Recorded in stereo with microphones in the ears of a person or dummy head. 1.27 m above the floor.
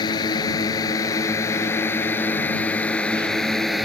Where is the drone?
20° left (ahead or behind); by 3.9 s 5° right (ahead or behind).